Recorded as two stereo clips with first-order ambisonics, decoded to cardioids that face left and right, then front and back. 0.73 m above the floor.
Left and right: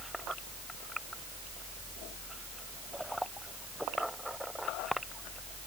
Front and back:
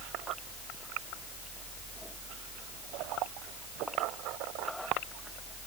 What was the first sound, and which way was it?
Only background noise.